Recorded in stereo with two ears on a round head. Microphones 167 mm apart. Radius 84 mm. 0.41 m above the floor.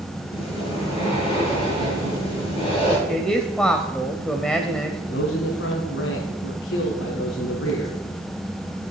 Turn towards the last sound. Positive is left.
turn(degrees=75)  # may be behind; listen again after turning